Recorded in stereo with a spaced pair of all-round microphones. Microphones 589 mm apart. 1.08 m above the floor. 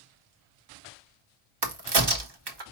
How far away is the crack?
About 0.9 m.